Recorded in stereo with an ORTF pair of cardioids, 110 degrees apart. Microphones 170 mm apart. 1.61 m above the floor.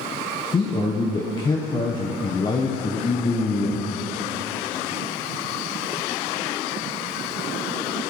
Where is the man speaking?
25° left, 1.2 m.